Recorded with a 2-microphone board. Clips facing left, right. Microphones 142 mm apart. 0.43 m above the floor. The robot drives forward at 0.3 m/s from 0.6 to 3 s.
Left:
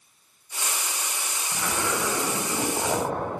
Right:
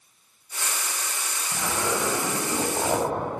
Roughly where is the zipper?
Centre.